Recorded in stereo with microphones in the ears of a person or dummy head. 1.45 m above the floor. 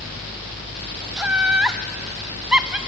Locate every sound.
1.2 s laughter: 5° right (ahead or behind), 0.7 m